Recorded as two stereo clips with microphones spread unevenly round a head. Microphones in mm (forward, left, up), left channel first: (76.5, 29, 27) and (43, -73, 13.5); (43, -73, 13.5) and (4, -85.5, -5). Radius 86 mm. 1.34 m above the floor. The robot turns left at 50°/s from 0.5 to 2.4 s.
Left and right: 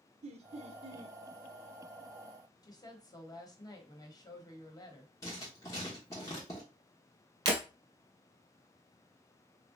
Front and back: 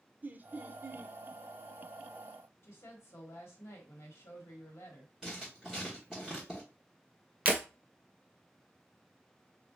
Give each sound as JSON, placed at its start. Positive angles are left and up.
{"t": 0.2, "sound": "laughter", "azimuth_deg": -130, "distance_m": 0.5}
{"t": 2.6, "sound": "a woman speaking", "azimuth_deg": 15, "distance_m": 1.1}
{"t": 5.2, "sound": "writing", "azimuth_deg": 90, "distance_m": 1.0}
{"t": 7.5, "sound": "breaking glass", "azimuth_deg": -110, "distance_m": 1.5}